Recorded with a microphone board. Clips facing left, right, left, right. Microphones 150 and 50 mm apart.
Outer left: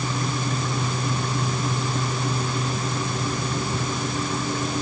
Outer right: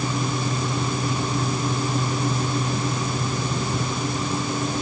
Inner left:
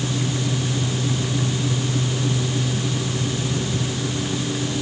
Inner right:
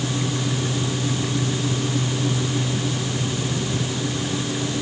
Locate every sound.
Only background noise.